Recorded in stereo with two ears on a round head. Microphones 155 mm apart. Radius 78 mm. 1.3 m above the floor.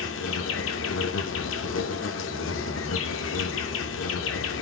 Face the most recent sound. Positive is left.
turn(degrees=85)